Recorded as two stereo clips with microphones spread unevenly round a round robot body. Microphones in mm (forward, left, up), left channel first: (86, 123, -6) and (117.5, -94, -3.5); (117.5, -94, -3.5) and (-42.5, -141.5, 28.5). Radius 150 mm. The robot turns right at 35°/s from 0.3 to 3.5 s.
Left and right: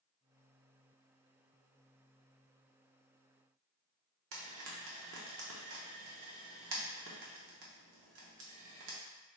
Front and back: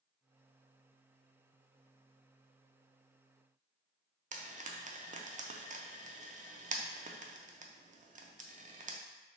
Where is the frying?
115° right, 0.6 m.